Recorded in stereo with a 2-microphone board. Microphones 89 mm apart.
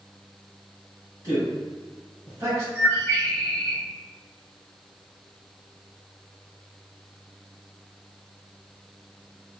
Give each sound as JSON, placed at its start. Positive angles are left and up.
{"t": 1.2, "sound": "a man speaking", "side_deg": -35, "distance_m": 1.2}
{"t": 2.8, "sound": "a bird", "side_deg": -25, "distance_m": 1.5}